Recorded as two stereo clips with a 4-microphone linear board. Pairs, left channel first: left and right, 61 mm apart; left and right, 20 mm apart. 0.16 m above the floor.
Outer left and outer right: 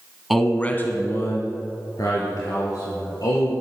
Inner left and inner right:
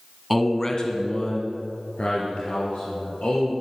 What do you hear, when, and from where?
0.3 s a man speaking: centre (ahead or behind), 1.0 m; by 3.5 s 70° left (ahead or behind), 4.5 m